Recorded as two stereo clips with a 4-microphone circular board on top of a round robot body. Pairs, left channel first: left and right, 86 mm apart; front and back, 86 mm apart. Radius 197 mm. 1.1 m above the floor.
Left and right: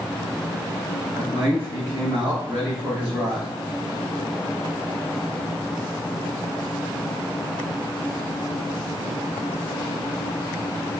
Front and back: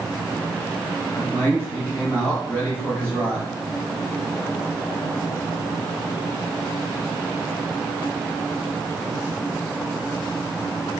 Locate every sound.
1.1 s a man speaking: 70° right, 3.5 m